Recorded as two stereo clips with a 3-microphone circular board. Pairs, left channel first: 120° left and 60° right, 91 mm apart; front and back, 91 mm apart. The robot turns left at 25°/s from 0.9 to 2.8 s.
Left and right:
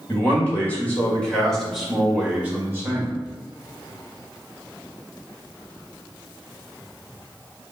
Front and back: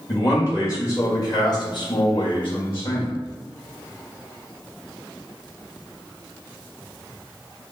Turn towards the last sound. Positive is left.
turn(degrees=5)